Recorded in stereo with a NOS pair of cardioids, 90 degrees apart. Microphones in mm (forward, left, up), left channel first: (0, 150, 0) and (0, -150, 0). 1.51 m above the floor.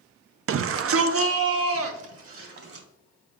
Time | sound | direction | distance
0.5 | a shout | 45° right | 0.5 m